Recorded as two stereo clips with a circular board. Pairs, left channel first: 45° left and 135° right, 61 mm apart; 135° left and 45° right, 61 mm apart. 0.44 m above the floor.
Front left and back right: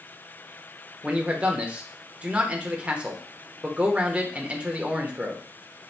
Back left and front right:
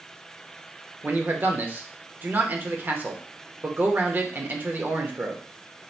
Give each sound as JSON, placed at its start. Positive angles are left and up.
{"t": 1.0, "sound": "a man speaking", "azimuth_deg": -80, "distance_m": 0.9}